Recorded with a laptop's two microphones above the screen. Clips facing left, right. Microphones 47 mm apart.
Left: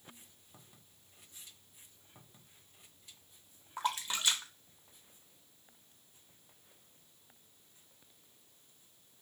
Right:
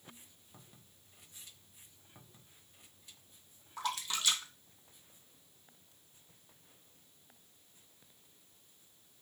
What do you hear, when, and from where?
3.8 s a splash: 25° left (ahead or behind), 0.9 m